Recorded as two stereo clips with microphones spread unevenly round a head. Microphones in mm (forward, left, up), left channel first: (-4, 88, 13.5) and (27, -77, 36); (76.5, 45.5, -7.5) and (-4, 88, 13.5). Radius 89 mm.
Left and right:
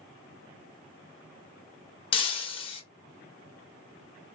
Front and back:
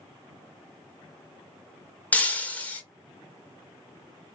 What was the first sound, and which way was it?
Breaking glass, 50° left.